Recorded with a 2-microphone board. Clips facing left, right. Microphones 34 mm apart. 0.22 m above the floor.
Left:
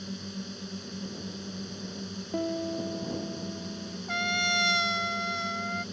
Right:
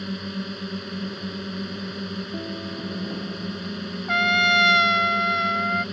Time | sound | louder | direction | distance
0.0 | a drone | right 8 dB | 45° right (ahead or behind) | ?
2.3 | a piano | left 1 dB | 35° left (ahead or behind) | ?
4.1 | a trumpet | right 9 dB | 40° right (ahead or behind) | ?